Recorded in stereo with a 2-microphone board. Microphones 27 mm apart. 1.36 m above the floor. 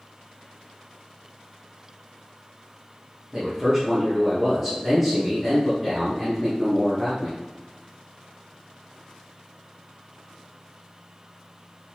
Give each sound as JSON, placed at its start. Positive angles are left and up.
{"t": 3.3, "sound": "a man speaking", "side_deg": -5, "distance_m": 1.3}